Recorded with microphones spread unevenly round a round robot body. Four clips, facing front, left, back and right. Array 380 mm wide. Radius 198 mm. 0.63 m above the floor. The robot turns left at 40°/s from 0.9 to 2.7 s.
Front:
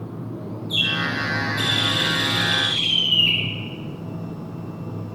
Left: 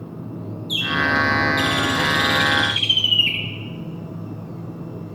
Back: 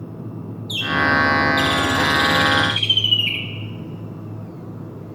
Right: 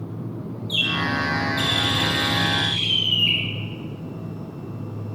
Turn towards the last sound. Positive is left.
turn(degrees=105)